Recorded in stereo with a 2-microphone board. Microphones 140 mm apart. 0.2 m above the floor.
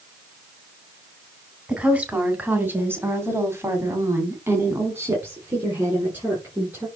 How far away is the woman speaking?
About 2 m.